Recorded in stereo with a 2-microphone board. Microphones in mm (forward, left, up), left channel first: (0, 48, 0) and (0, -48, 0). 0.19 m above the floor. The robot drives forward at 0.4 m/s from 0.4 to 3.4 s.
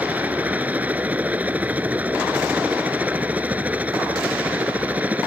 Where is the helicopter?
15° right (ahead or behind).